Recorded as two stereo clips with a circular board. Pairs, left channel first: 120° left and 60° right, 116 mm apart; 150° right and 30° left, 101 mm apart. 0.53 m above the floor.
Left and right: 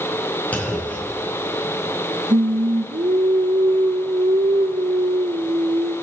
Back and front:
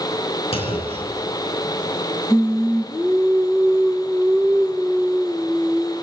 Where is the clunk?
165° right, 4 m.